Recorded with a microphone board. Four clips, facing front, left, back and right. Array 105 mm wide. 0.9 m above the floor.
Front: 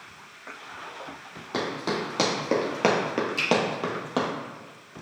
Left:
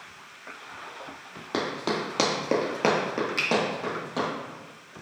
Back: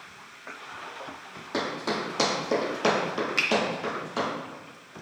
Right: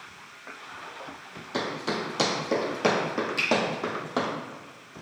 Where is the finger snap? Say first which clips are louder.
Even, back 1 dB; 155° left, 0.9 m.